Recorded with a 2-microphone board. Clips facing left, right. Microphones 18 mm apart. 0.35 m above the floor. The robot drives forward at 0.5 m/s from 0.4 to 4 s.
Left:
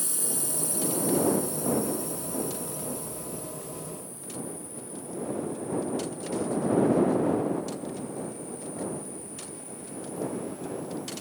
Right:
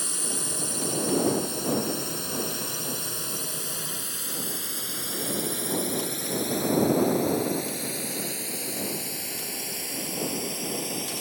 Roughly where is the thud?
No thud in this recording.